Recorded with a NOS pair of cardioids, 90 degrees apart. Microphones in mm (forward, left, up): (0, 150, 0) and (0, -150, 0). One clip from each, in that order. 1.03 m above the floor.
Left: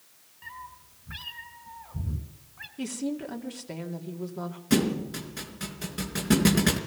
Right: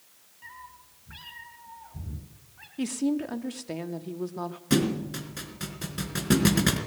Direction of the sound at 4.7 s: 15° right.